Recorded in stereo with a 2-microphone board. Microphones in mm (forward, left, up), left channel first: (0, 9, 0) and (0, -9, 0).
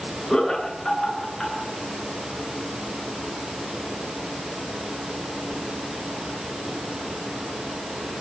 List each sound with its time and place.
0.3 s laughter: 30° left (ahead or behind), 9 m